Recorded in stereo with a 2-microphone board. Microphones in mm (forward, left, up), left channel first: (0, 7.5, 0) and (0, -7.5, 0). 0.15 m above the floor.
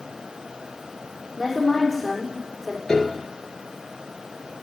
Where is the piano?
55° left (ahead or behind), 2.0 m.